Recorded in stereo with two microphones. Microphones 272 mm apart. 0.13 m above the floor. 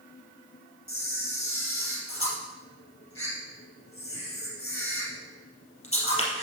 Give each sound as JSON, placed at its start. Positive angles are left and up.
{"t": 0.9, "sound": "a camera shutter", "side_deg": 55, "distance_m": 3.0}